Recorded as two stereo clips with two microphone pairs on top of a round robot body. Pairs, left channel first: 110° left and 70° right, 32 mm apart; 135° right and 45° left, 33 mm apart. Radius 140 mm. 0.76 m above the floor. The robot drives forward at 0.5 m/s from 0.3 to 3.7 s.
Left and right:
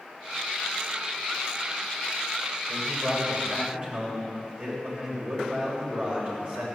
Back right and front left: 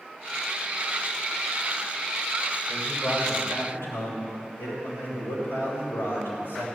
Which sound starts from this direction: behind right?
A man speaking, at 2.7 s.